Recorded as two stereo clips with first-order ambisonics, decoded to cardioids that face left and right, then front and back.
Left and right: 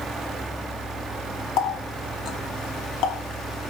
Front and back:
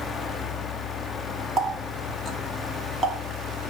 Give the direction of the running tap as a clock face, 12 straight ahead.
8 o'clock.